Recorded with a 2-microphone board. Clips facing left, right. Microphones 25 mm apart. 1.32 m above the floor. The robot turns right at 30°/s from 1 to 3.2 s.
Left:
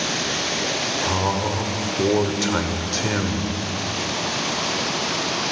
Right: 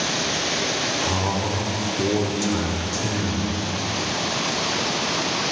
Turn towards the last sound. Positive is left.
turn(degrees=75)